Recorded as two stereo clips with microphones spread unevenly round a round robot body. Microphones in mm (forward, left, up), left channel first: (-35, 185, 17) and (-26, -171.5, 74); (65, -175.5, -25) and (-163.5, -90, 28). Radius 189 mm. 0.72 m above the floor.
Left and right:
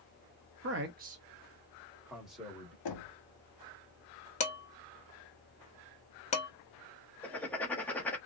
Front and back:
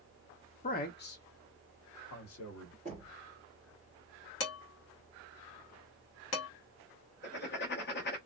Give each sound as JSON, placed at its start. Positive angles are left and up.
{"t": 0.6, "sound": "a man speaking", "azimuth_deg": -40, "distance_m": 0.6}
{"t": 2.9, "sound": "knocking", "azimuth_deg": 85, "distance_m": 1.0}
{"t": 4.4, "sound": "dishes clattering", "azimuth_deg": 25, "distance_m": 0.8}
{"t": 7.2, "sound": "writing", "azimuth_deg": 10, "distance_m": 0.7}